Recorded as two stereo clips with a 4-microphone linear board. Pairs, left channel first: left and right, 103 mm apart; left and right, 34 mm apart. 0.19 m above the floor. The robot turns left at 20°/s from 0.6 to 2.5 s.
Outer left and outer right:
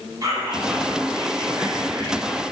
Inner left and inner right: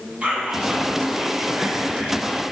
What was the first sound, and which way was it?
Whispering, 75° right.